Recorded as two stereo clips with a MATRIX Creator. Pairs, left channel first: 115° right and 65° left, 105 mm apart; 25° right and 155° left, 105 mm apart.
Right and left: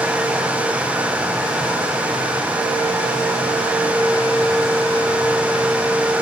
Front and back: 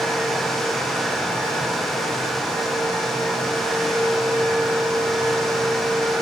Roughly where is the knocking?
I don't hear knocking.